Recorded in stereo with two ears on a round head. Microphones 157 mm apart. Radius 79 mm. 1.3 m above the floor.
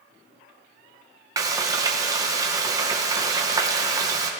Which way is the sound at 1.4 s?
20° right (ahead or behind).